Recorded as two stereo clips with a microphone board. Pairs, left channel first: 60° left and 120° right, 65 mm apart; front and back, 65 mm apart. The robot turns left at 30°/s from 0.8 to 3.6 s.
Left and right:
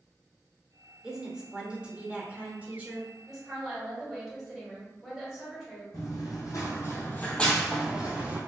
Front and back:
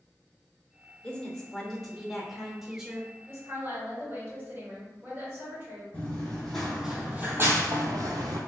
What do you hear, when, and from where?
1.0 s a woman speaking: 60° right, 0.8 m; by 3.1 s 120° right, 0.8 m
3.3 s a woman speaking: 160° left, 1.8 m; by 5.8 s 150° left, 1.8 m
5.9 s running footsteps: 75° left, 1.4 m; by 8.4 s straight behind, 1.2 m